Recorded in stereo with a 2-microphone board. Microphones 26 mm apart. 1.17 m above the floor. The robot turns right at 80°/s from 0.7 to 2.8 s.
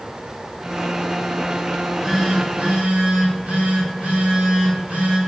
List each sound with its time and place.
1.7 s a phone buzzing: 160° left, 2.5 m; by 5.2 s 115° right, 2.5 m